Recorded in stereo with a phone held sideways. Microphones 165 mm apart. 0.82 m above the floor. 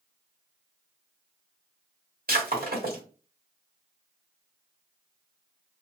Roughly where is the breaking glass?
Right.